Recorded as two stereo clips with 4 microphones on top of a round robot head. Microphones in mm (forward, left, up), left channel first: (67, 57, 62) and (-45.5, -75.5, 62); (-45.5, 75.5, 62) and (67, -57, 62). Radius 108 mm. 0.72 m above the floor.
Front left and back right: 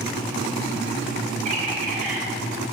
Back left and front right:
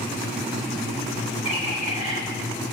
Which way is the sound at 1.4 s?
175° right.